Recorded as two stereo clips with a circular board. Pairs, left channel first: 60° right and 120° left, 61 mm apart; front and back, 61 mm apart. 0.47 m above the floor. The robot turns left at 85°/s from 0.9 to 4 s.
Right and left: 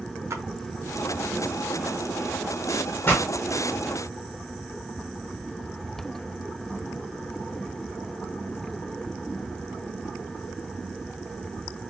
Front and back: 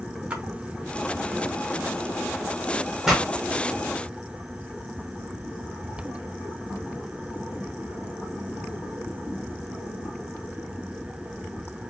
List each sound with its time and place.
0.3 s a splash: 120° left, 0.9 m
3.0 s a pop: 95° right, 1.3 m; by 3.2 s 110° right, 1.3 m